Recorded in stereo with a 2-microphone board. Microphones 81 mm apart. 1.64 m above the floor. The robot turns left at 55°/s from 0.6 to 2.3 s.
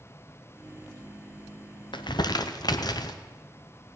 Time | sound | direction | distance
1.9 | crumpling | 75° left (ahead or behind) | 0.8 m